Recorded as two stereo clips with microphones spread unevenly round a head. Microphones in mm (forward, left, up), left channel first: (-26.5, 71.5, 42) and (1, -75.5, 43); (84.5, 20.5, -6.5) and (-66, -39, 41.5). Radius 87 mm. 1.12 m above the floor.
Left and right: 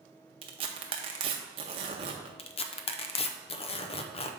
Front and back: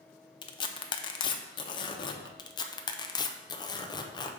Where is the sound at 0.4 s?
50° right, 0.6 m.